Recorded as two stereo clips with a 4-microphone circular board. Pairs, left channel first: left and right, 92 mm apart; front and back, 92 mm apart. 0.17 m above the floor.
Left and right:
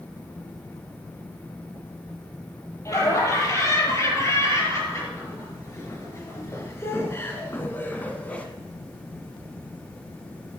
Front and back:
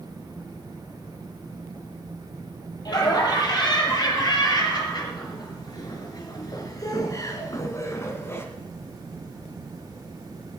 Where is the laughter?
40° left, 5.5 m; by 8.5 s 30° left, 1.8 m.